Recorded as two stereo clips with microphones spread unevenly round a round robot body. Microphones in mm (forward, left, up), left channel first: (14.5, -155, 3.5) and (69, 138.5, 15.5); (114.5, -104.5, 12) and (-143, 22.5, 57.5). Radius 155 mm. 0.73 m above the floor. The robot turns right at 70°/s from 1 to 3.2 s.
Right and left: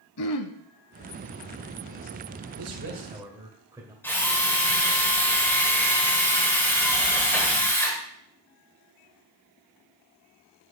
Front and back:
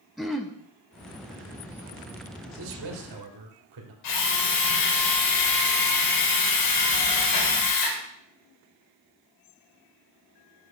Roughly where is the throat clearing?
Behind right.